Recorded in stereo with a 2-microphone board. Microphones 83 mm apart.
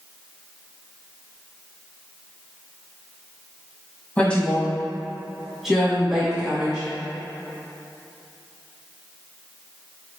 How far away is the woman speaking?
About 1.6 m.